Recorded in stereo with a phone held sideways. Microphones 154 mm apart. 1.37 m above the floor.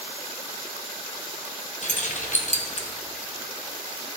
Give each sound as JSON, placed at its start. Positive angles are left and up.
{"t": 1.8, "sound": "keys jangling", "side_deg": 55, "distance_m": 0.8}